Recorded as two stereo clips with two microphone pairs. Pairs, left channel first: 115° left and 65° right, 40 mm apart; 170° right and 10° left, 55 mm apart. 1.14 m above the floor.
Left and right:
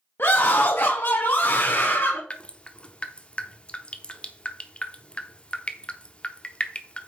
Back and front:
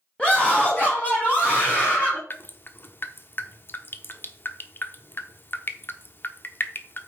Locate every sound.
0.2 s a scream: 120° left, 1.2 m; by 2.2 s 140° left, 2.5 m
2.3 s dripping: 160° left, 0.8 m